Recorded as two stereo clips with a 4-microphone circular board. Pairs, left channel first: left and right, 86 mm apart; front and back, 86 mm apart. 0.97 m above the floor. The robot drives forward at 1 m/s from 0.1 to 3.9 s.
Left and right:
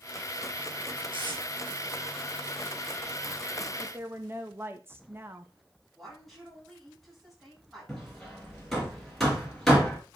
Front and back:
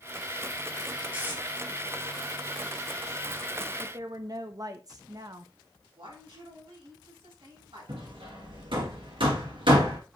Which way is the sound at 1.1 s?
110° right.